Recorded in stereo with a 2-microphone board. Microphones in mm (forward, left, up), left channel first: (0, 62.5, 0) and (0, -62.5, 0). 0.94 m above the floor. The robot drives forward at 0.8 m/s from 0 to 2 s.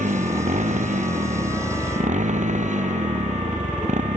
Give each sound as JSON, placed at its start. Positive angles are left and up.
{"t": 0.0, "sound": "a motorcycle", "side_deg": -80}